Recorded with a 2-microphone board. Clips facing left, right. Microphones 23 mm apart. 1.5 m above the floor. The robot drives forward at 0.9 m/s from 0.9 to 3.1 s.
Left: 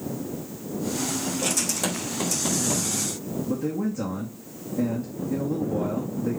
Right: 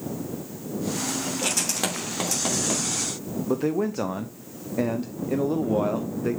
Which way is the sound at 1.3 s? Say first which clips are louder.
Right 1 dB; 30° right (ahead or behind).